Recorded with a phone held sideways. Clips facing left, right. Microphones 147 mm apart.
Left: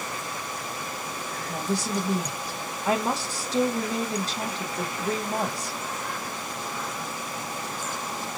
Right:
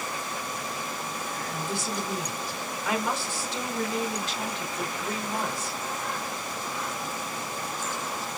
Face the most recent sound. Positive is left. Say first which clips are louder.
# left 6 dB
turn(degrees=35)  # may be behind; listen again after turning